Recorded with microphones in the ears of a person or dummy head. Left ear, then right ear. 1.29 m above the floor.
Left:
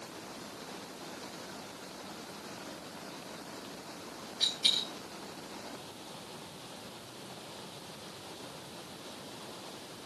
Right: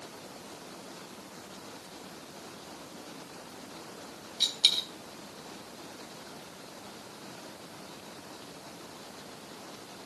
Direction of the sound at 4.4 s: 40° right (ahead or behind).